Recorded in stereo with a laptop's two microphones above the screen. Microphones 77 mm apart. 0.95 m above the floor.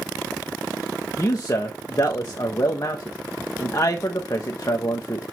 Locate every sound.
1.2 s a man speaking: 45° left (ahead or behind), 0.5 m